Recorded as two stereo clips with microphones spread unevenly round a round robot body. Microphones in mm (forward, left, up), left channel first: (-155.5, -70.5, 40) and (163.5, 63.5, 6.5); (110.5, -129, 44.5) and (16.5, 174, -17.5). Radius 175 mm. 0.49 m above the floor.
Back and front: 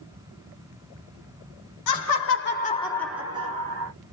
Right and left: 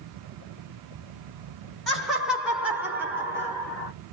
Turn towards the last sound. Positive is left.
turn(degrees=45)